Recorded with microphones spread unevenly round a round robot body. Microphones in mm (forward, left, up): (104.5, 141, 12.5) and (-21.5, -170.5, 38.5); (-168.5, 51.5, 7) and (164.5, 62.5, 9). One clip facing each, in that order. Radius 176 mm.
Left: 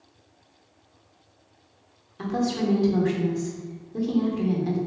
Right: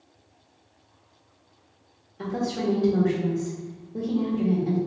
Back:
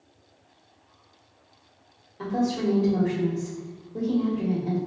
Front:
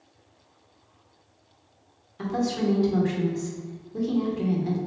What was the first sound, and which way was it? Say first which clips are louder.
A woman speaking: left 2 dB, back 1 dB; 30° left.